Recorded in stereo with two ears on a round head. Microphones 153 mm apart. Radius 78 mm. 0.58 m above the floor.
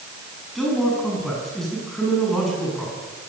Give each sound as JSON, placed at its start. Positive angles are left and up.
{"t": 0.6, "sound": "a man speaking", "side_deg": 0, "distance_m": 6.5}